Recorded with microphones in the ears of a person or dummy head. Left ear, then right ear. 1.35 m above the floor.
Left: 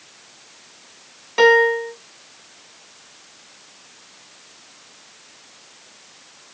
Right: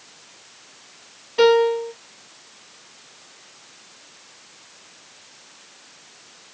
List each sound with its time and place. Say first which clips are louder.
1.4 s a piano: left 2 dB; 60° left (ahead or behind), 1.8 m